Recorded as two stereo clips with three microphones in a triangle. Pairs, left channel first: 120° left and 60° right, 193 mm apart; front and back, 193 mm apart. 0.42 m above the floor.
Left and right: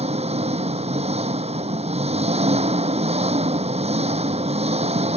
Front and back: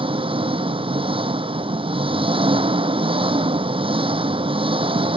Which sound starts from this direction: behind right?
An engine running, at 0.0 s.